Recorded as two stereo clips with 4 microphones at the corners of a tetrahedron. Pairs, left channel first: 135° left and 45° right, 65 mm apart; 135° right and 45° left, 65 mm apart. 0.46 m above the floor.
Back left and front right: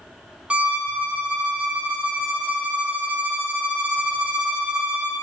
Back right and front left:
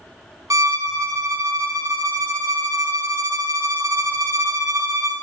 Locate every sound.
0.5 s a violin: 25° left, 1.6 m